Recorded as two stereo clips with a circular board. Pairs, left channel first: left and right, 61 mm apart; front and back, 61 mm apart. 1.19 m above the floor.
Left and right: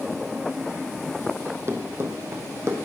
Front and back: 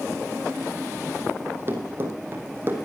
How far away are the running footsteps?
About 2.5 m.